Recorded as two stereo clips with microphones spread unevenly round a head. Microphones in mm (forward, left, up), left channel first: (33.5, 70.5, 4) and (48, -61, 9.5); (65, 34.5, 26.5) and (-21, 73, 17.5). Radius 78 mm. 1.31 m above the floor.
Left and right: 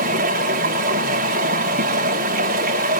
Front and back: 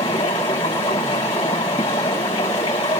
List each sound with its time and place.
0.0 s running water: 85° right, 8 m